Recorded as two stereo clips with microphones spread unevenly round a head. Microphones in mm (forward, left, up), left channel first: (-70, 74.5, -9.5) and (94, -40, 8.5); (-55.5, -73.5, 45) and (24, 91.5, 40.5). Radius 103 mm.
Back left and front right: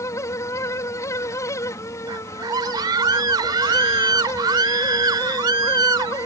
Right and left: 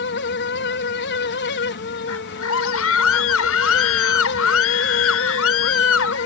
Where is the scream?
105° right.